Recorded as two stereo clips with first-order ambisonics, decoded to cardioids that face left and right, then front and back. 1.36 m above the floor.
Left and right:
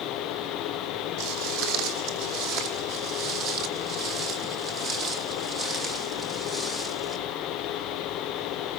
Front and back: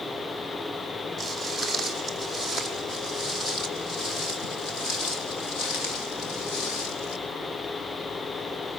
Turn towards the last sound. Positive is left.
turn(degrees=-10)